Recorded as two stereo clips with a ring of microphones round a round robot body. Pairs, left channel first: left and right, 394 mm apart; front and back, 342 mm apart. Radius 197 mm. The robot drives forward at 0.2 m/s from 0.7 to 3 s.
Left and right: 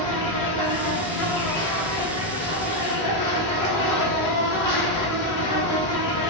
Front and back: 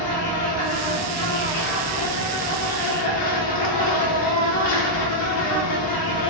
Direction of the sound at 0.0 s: 20° left.